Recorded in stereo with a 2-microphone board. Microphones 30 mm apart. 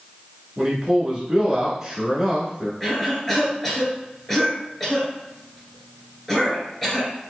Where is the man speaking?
10° right (ahead or behind), 1.3 m.